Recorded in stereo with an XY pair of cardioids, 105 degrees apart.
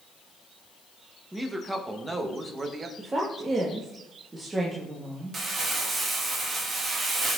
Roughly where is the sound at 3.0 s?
Ahead right.